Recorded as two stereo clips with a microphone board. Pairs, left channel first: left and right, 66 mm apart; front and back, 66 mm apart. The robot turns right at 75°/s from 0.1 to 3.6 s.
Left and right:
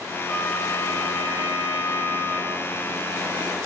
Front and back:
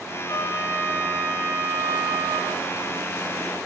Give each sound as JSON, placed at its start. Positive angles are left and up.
{"t": 0.3, "sound": "a trumpet", "azimuth_deg": 10, "distance_m": 0.5}